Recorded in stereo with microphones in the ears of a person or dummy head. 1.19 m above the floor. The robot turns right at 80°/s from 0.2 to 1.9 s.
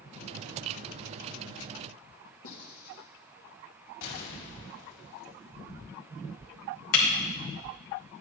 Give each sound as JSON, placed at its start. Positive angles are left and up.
{"t": 2.4, "sound": "writing", "side_deg": 70, "distance_m": 2.0}
{"t": 4.0, "sound": "an explosion", "side_deg": 65, "distance_m": 2.5}
{"t": 6.9, "sound": "breaking glass", "side_deg": 65, "distance_m": 1.9}